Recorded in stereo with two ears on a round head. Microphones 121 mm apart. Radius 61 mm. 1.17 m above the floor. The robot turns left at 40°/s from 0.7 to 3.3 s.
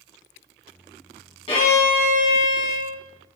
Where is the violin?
135° left, 1.4 m; by 3.0 s 75° left, 1.4 m.